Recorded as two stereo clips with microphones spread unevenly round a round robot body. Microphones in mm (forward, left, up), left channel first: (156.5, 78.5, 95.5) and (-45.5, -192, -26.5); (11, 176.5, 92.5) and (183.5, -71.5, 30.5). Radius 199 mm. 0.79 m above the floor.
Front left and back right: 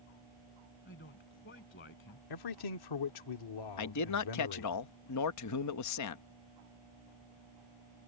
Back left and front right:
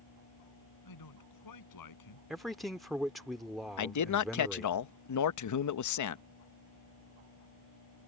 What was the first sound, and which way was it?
A man speaking, 115° left.